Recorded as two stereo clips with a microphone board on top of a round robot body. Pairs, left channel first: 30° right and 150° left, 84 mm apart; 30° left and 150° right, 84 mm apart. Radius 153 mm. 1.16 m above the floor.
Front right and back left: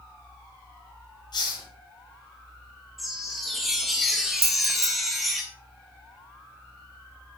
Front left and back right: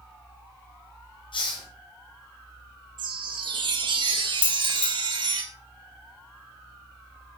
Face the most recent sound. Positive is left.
turn(degrees=85)